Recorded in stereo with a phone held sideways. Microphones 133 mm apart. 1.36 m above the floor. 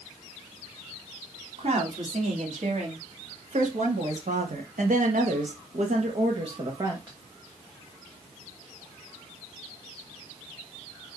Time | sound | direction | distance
1.6 | a woman speaking | 60° right (ahead or behind) | 3 m